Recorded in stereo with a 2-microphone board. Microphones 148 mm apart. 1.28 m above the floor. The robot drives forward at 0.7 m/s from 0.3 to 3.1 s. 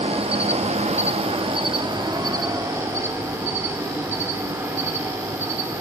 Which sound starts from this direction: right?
An insect, at 0.0 s.